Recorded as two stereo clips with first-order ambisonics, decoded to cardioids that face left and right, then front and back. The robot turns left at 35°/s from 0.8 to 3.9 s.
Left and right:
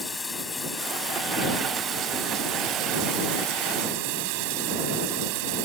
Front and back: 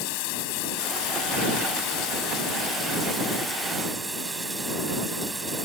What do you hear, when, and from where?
0.0 s running water: 10° left; by 5.7 s 100° right